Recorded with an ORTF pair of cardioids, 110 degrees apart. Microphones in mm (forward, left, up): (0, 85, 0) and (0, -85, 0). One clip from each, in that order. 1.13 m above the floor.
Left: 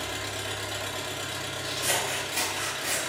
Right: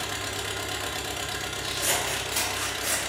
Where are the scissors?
55° right, 1.9 m.